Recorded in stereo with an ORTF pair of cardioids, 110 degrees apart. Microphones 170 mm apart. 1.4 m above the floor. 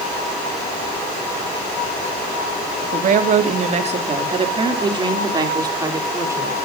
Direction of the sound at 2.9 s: 50° right.